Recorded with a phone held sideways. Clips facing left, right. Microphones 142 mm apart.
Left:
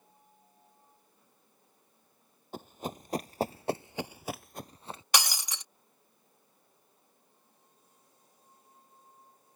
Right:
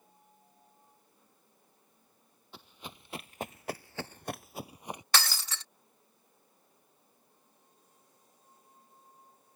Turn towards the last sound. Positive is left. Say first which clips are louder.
# left 1 dB
turn(degrees=15)  # may be behind; listen again after turning